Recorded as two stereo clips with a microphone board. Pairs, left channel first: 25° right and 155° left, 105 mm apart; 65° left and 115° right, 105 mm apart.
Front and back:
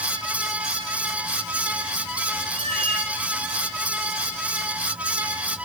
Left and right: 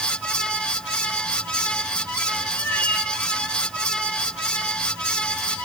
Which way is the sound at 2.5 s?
140° left.